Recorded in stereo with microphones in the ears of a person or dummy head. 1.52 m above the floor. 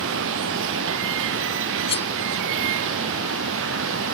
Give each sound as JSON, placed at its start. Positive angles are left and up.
{"t": 0.0, "sound": "running water", "side_deg": -75}
{"t": 1.9, "sound": "cutlery clinking", "side_deg": 30}